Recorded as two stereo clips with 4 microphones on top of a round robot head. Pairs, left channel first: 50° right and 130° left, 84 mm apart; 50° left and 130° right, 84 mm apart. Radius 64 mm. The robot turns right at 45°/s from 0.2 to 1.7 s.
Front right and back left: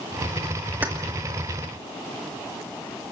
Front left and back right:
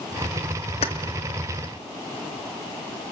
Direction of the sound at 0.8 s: 55° left.